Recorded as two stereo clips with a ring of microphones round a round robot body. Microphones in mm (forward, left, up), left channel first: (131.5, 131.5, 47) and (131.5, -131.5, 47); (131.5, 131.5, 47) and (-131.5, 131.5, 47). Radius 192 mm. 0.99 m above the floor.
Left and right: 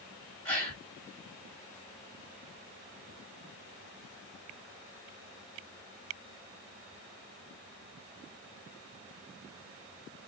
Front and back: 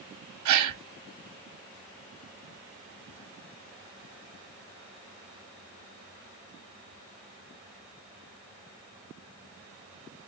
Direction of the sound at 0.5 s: 175° left.